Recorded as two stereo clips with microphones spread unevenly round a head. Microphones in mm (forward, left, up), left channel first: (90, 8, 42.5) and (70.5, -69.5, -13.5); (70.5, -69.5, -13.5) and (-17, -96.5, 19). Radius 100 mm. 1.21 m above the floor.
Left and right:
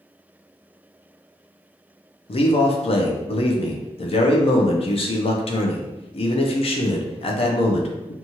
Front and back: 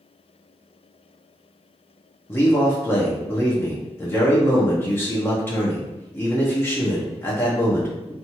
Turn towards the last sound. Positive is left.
turn(degrees=45)